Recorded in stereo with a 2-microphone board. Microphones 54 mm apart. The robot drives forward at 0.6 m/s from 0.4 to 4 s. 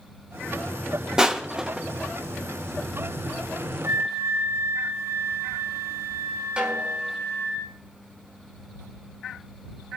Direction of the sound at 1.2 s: 10° right (ahead or behind).